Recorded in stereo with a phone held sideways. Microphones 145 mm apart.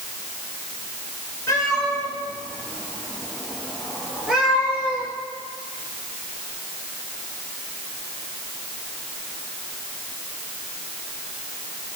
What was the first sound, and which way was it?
A cat meowing, 20° left (ahead or behind).